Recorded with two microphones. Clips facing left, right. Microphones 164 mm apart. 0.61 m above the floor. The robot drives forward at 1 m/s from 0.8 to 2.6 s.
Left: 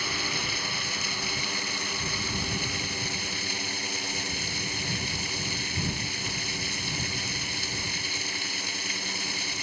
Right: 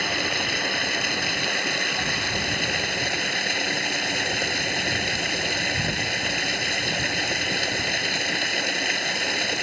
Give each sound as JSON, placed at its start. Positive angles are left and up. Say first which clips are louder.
{"t": 0.0, "sound": "running water", "louder": "right 6 dB", "side_deg": -80}